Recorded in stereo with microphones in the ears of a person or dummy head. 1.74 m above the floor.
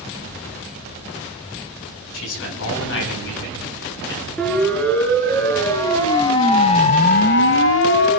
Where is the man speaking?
80° left, 5.5 m; by 4.3 s 70° left (ahead or behind), 7 m.